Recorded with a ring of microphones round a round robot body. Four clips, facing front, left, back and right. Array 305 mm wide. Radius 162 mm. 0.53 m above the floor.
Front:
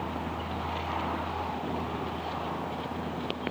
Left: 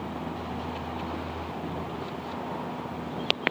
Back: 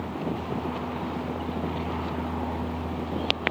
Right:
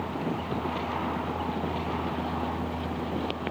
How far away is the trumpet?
I don't hear a trumpet.